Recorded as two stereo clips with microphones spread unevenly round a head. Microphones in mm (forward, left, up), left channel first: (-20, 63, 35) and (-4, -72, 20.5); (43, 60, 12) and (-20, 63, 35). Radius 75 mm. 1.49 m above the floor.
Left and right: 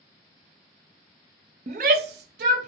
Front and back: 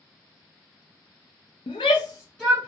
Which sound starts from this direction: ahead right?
A shout, at 1.7 s.